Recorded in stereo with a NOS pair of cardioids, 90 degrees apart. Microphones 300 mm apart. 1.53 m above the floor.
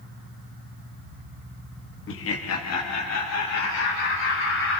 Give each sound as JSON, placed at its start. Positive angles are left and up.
{"t": 2.1, "sound": "laughter", "azimuth_deg": 50, "distance_m": 0.9}